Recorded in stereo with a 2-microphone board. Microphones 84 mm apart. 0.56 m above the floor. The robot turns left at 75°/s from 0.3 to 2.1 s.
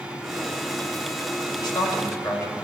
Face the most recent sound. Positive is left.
turn(degrees=40)